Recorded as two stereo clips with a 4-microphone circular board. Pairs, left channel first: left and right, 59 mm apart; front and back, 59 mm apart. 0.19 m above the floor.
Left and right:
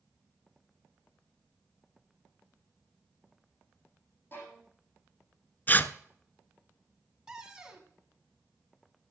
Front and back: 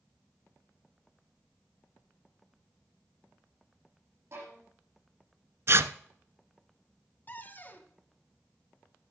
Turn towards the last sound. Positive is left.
turn(degrees=-20)